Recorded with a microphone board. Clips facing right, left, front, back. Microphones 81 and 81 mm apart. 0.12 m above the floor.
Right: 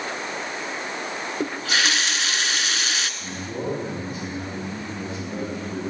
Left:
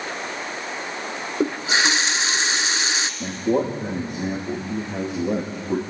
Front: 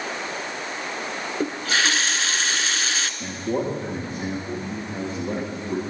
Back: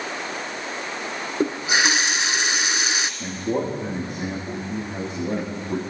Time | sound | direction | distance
1.4 | a running tap | 125° left | 0.9 m
3.2 | a man speaking | 100° left | 7.5 m